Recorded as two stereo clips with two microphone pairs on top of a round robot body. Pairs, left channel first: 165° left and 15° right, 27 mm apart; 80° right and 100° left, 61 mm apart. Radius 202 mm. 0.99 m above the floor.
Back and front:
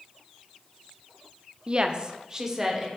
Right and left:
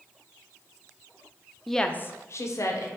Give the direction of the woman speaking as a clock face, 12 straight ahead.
12 o'clock.